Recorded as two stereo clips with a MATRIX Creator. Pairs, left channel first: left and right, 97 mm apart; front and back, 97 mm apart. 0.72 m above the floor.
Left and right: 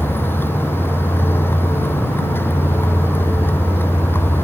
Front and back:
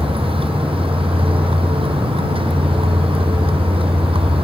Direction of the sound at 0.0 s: 160° left.